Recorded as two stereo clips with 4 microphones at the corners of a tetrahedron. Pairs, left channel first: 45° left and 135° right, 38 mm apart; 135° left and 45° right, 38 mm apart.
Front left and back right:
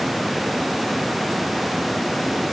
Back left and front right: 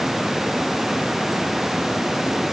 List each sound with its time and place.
Only background noise.